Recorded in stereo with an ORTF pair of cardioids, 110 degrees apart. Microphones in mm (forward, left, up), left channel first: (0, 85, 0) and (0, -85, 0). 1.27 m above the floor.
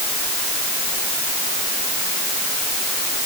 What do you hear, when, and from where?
Only background noise.